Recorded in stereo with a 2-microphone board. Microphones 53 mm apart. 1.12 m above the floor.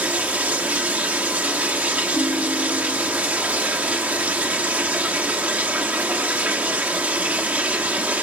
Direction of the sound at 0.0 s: 30° right (ahead or behind).